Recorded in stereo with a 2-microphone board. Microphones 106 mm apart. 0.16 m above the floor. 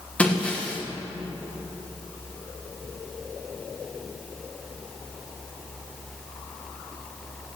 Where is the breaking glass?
15° left (ahead or behind), 5 m.